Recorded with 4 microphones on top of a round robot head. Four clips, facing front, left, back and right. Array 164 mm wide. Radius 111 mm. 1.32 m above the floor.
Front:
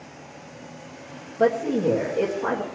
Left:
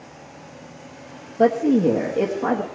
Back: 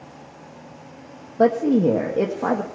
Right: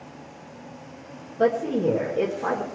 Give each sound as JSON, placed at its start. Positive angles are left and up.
{"t": 1.4, "sound": "a woman speaking", "azimuth_deg": 150, "distance_m": 1.4}